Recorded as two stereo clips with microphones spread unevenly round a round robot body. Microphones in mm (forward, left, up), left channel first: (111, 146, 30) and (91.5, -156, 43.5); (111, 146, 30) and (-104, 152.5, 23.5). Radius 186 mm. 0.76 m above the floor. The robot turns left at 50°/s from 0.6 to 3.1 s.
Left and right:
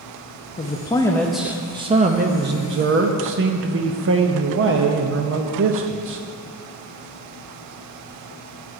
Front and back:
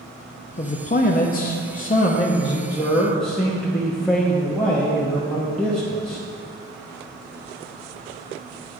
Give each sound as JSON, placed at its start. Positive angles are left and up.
{"t": 0.6, "sound": "a man speaking", "azimuth_deg": 35, "distance_m": 0.6}